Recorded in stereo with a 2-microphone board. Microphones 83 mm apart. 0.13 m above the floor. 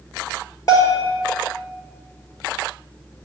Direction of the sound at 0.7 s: 45° left (ahead or behind).